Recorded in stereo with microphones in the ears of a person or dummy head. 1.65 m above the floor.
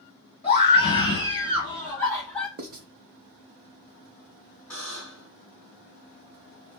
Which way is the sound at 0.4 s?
30° left (ahead or behind).